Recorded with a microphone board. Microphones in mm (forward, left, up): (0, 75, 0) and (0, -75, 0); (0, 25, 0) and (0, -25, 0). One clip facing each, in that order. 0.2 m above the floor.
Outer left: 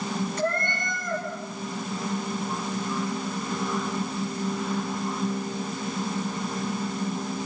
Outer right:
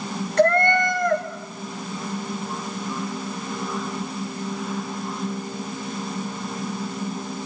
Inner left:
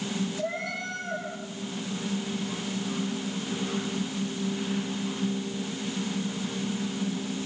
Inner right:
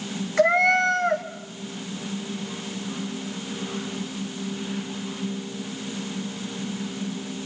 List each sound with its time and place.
0.4 s a cat meowing: 70° right (ahead or behind), 2 m